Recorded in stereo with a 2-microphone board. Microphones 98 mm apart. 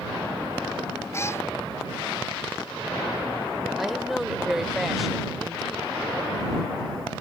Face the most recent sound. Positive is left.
turn(degrees=0)  # may be behind; listen again after turning